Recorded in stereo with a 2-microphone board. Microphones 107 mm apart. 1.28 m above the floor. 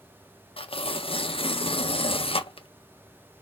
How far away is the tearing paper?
About 0.6 m.